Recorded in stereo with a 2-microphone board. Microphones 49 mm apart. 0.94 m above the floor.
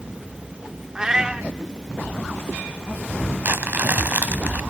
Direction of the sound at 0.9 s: 15° right (ahead or behind).